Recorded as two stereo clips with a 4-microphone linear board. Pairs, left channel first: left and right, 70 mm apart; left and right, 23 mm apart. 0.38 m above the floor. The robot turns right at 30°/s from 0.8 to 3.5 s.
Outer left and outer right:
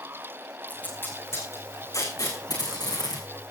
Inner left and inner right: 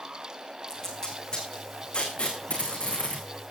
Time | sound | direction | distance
0.7 | tape being pulled | 25° left (ahead or behind) | 5 m